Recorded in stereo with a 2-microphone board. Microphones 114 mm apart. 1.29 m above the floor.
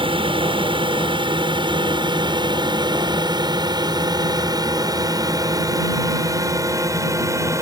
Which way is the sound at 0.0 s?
50° right (ahead or behind).